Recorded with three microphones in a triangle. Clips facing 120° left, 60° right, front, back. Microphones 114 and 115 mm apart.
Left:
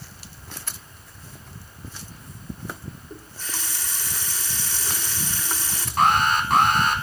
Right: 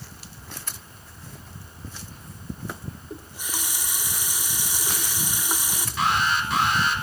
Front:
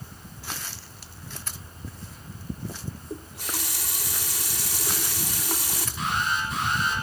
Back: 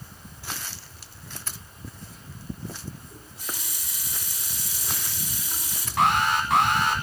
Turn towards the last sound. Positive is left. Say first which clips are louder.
# left 4 dB, back 7 dB
turn(degrees=160)